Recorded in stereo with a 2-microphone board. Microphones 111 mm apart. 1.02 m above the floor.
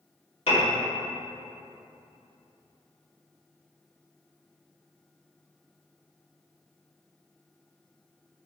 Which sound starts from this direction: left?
A piano, at 0.5 s.